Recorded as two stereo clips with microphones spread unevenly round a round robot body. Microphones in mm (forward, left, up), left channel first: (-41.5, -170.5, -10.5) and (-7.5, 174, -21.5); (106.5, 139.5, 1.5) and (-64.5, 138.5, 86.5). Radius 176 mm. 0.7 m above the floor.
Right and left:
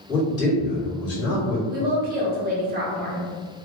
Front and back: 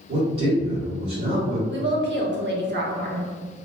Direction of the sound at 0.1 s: 170° right.